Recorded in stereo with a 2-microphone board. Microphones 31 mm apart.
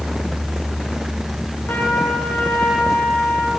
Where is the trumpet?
70° left (ahead or behind), 4.5 m.